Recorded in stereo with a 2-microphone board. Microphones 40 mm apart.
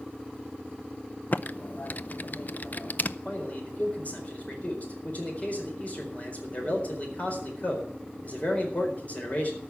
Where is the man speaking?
40° left (ahead or behind), 4.5 m.